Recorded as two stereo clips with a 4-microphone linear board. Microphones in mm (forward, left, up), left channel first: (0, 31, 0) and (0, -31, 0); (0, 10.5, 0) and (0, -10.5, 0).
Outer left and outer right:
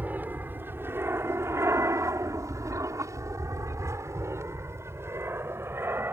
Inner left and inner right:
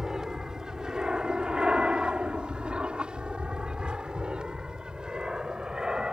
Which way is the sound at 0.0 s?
30° right (ahead or behind).